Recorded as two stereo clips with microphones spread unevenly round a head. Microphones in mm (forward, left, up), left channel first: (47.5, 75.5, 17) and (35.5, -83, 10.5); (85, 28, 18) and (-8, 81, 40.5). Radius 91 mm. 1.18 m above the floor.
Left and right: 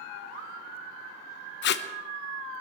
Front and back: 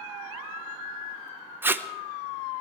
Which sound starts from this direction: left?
Tape being pulled, at 1.6 s.